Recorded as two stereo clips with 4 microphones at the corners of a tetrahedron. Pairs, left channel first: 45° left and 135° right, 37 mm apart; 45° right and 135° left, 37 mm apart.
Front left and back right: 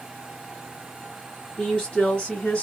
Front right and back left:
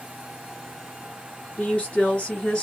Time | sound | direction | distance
1.6 | a woman speaking | 30° right | 1.7 m